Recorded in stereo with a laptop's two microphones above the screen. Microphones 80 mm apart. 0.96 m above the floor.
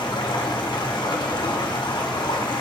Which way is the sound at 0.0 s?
80° left.